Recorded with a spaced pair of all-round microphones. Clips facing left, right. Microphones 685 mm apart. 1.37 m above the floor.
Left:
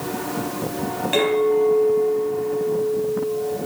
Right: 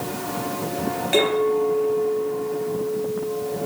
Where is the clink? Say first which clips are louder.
Left 2 dB; 50° right (ahead or behind), 4.5 m.